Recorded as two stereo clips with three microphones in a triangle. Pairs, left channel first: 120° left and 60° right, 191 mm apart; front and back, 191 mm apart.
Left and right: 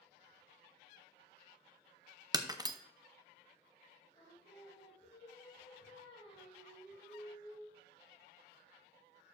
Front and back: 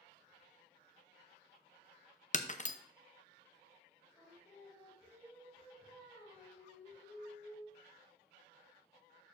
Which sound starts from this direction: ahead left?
Singing, at 4.1 s.